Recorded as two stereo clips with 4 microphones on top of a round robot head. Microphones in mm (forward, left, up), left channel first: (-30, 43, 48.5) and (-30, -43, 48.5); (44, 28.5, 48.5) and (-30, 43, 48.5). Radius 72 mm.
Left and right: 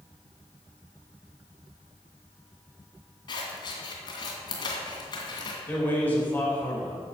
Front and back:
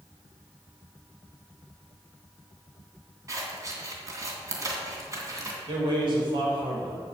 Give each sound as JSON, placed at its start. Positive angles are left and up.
{"t": 3.3, "sound": "scissors", "azimuth_deg": 125, "distance_m": 2.5}
{"t": 5.7, "sound": "a man speaking", "azimuth_deg": 160, "distance_m": 4.5}